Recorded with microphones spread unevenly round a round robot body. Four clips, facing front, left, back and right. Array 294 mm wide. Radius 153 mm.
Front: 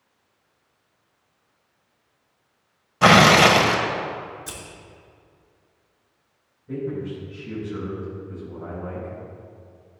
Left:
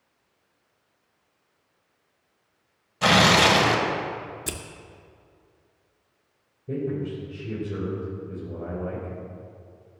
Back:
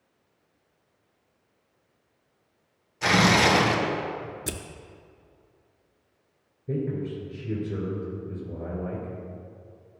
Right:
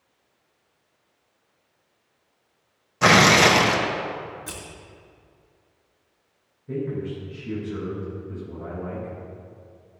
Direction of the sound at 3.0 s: 20° right.